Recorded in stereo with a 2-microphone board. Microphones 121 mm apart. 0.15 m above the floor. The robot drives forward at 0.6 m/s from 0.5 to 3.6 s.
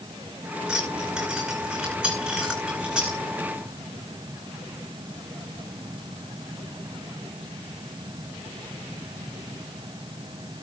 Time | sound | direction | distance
0.7 | keys jangling | 5° right (ahead or behind) | 8.5 m